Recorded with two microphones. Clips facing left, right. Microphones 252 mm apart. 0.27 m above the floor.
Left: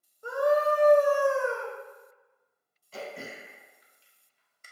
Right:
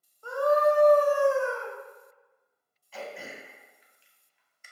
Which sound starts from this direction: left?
Throat clearing, at 2.9 s.